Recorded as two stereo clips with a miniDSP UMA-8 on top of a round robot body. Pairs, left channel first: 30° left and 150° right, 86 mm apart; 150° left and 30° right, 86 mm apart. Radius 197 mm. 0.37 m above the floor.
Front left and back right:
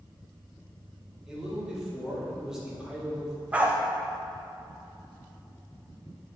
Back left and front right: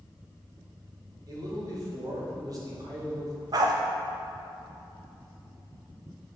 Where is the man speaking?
70° right, 2.5 m.